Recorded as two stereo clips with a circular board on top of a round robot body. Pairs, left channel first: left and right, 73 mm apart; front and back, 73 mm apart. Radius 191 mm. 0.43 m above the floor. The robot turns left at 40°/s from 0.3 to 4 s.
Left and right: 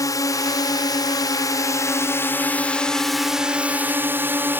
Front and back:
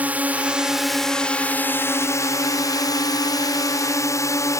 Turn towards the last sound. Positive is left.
turn(degrees=-35)